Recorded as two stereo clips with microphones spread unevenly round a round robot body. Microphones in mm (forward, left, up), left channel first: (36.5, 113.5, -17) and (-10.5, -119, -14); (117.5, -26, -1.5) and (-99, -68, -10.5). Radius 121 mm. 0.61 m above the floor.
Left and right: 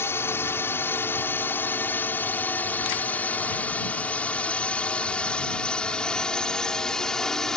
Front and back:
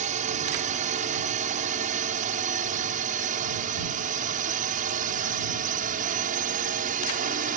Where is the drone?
155° left; by 7.6 s 165° left.